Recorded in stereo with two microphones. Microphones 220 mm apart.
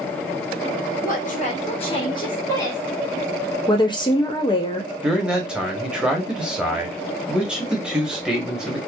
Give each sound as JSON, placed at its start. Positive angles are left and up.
{"t": 1.0, "sound": "a woman speaking", "side_deg": 40, "distance_m": 1.0}
{"t": 3.7, "sound": "a woman speaking", "side_deg": 20, "distance_m": 0.6}
{"t": 5.0, "sound": "a man speaking", "side_deg": -5, "distance_m": 0.9}